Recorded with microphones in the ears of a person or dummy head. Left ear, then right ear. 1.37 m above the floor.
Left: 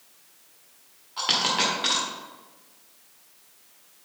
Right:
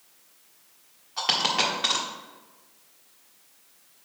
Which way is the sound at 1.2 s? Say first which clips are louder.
Even; 10° right (ahead or behind).